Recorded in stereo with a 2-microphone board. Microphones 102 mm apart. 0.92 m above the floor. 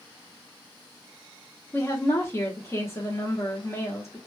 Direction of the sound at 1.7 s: 25° left (ahead or behind).